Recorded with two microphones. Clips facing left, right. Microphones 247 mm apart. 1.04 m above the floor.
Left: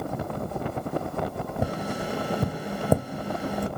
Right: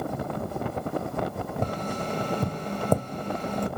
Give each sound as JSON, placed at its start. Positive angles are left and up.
{"t": 1.6, "sound": "tapping", "side_deg": 10, "distance_m": 0.5}